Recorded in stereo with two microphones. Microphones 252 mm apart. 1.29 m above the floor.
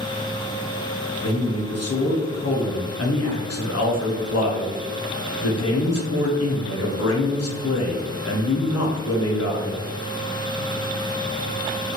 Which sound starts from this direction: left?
A man speaking, at 1.2 s.